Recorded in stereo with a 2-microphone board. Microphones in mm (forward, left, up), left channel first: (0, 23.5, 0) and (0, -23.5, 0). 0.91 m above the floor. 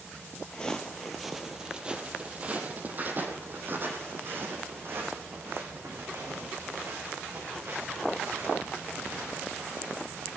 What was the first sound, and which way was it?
Footsteps, 20° left (ahead or behind).